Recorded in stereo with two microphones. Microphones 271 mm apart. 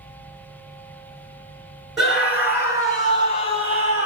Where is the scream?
Centre (ahead or behind), 1.9 m; by 4.1 s 30° right (ahead or behind), 1.9 m.